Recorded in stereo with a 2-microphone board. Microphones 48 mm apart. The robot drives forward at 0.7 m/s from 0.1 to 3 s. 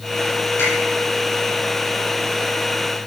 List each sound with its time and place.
0.6 s a finger snap: 50° left (ahead or behind), 6.5 m